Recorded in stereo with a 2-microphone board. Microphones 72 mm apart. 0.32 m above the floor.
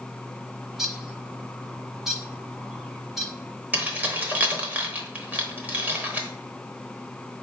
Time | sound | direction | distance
0.7 | a bird | 5° right (ahead or behind) | 0.9 m
3.7 | keys jangling | 25° right (ahead or behind) | 0.8 m